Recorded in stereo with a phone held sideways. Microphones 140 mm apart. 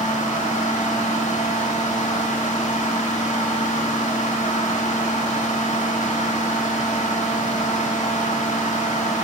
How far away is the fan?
About 0.8 m.